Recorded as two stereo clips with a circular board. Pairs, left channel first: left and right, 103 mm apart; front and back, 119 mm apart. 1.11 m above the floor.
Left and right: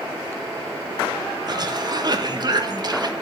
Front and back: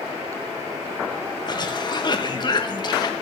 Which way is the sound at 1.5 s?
45° right.